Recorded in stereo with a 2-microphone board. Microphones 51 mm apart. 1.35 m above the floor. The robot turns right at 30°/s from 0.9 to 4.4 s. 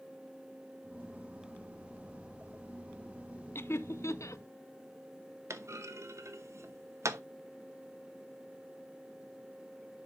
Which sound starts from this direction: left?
Laughter, at 3.5 s.